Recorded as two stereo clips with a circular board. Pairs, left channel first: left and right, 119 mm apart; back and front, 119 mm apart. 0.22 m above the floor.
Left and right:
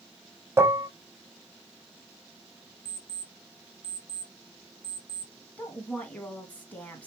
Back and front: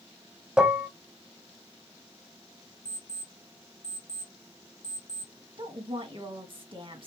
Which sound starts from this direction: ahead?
A woman speaking, at 5.6 s.